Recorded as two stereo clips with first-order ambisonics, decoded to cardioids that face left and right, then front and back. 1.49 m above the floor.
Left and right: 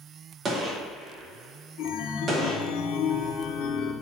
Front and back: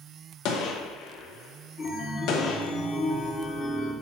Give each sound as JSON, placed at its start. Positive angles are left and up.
{"t": 0.5, "sound": "a gunshot", "azimuth_deg": -25, "distance_m": 1.0}
{"t": 1.8, "sound": "a chime", "azimuth_deg": 65, "distance_m": 0.9}